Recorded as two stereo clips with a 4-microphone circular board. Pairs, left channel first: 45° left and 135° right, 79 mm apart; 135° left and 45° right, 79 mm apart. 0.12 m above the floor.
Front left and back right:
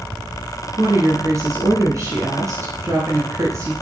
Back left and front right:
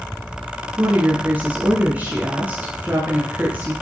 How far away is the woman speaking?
About 1.8 m.